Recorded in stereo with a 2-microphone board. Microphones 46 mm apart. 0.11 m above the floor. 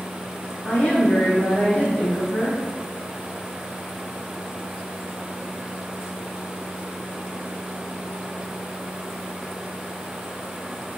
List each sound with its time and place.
0.7 s a woman speaking: 30° left (ahead or behind), 1.3 m